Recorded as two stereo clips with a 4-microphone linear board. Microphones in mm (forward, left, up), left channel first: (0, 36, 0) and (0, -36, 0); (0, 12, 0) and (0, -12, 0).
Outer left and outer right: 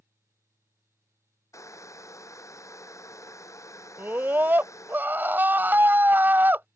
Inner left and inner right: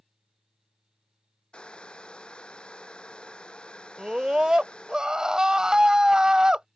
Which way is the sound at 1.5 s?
45° left (ahead or behind).